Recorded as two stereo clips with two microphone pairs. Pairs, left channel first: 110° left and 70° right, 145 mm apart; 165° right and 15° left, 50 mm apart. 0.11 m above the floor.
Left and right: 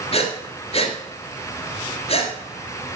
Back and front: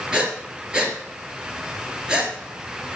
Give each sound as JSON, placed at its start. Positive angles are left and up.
{"t": 0.1, "sound": "breathing", "azimuth_deg": 85, "distance_m": 2.0}